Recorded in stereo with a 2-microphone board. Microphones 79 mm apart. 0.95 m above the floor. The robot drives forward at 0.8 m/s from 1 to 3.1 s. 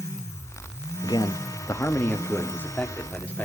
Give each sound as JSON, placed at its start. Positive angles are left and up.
{"t": 1.0, "sound": "a man speaking", "side_deg": 60, "distance_m": 0.8}